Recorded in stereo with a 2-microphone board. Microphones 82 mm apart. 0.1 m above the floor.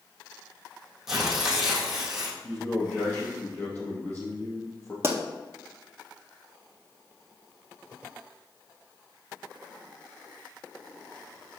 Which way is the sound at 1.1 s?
5° right (ahead or behind).